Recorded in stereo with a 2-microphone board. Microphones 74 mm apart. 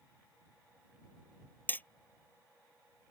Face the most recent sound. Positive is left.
turn(degrees=25)  # may be behind; listen again after turning